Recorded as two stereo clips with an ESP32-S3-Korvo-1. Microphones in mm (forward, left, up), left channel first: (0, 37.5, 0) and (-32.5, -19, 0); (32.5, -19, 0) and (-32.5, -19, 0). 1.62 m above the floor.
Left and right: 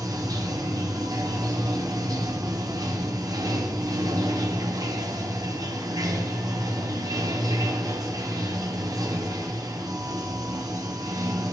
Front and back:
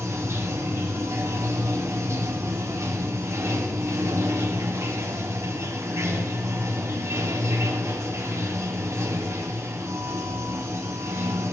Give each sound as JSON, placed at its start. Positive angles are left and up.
{"t": 0.0, "sound": "running water", "azimuth_deg": -135, "distance_m": 1.0}